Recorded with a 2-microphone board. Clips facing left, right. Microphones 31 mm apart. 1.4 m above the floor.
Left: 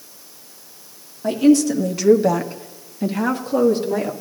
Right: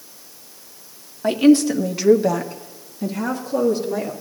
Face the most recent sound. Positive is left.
turn(degrees=55)  # may be behind; listen again after turning